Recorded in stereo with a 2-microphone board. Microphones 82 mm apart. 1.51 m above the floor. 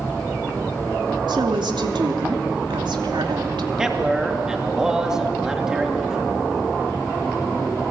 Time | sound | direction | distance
1.3 | a woman speaking | 75° right (ahead or behind) | 2.5 m
3.8 | a man speaking | 5° right (ahead or behind) | 3 m